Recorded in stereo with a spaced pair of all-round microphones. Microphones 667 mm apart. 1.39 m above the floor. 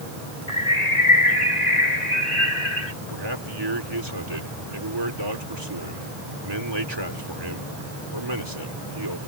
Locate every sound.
0.5 s a bird: 70° left (ahead or behind)
3.1 s a man speaking: 35° right (ahead or behind)